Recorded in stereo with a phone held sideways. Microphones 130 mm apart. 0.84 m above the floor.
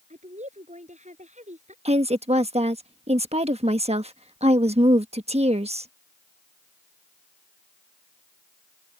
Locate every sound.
0.1 s a woman speaking: 60° right (ahead or behind)
1.9 s a woman speaking: 50° right (ahead or behind)